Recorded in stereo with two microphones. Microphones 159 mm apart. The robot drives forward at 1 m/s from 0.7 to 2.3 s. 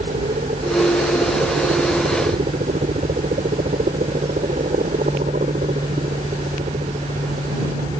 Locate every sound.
0.0 s a helicopter: 55° right (ahead or behind)